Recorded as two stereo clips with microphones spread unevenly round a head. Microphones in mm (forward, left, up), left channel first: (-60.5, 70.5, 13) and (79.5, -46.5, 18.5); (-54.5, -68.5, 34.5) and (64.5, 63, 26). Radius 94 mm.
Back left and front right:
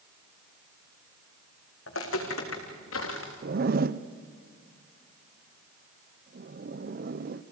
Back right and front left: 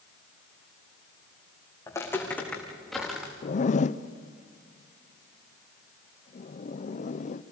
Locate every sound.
1.9 s footsteps: 155° left, 4.5 m; by 3.3 s 135° left, 5.5 m
3.4 s a zipper: 85° right, 0.6 m